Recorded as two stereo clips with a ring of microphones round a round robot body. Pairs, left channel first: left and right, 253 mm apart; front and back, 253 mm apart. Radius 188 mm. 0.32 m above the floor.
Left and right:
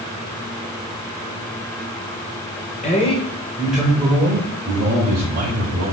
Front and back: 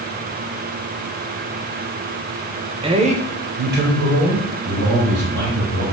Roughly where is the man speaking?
Behind left.